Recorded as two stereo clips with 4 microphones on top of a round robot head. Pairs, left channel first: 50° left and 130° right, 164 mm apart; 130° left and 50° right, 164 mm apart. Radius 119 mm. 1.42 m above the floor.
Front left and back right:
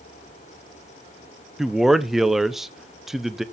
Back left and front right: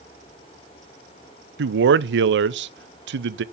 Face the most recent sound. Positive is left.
turn(degrees=-40)